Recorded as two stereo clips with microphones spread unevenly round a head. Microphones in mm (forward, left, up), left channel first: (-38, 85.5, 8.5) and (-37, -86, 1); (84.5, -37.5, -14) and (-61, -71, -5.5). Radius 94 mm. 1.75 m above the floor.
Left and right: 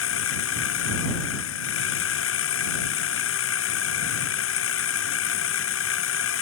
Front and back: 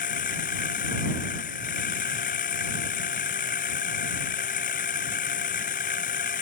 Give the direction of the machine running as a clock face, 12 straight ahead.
10 o'clock.